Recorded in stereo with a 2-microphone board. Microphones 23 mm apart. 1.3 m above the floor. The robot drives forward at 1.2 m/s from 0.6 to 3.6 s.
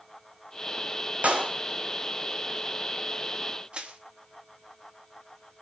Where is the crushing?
60° right (ahead or behind), 3 m.